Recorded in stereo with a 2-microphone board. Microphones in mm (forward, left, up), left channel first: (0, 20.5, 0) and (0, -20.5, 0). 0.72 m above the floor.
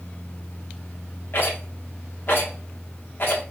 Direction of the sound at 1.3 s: 60° left (ahead or behind).